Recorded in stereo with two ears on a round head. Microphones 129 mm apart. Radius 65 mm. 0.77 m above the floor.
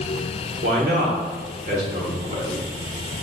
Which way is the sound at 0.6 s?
65° right (ahead or behind).